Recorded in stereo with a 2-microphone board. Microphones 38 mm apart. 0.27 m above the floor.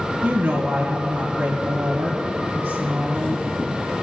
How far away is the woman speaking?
About 3 m.